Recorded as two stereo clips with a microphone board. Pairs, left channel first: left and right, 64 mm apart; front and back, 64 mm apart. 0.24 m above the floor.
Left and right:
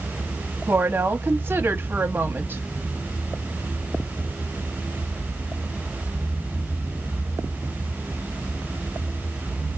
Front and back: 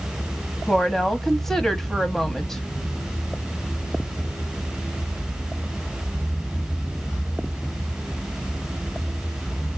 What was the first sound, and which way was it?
A woman speaking, 80° right.